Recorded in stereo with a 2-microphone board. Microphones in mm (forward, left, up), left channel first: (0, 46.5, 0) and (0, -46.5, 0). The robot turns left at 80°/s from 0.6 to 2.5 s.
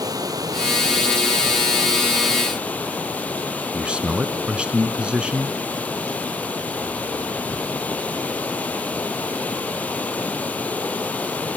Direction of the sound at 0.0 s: 45° right.